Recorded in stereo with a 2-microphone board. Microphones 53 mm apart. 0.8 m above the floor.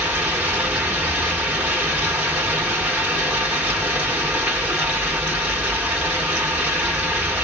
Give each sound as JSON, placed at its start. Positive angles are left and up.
{"t": 0.0, "sound": "running water", "side_deg": -25, "distance_m": 1.8}